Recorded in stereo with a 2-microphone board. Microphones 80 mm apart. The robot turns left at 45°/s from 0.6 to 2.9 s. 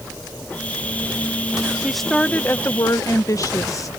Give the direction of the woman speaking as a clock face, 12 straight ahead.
6 o'clock.